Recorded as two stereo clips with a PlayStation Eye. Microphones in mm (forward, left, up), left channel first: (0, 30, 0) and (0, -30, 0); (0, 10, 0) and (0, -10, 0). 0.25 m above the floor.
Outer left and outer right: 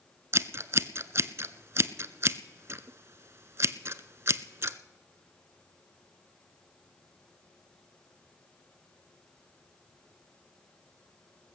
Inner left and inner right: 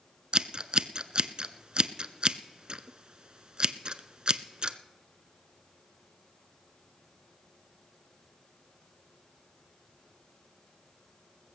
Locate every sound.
0.3 s scissors: 50° right (ahead or behind), 0.5 m